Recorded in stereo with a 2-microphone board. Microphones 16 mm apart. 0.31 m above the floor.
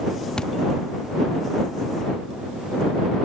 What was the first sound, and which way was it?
A thud, 55° left (ahead or behind).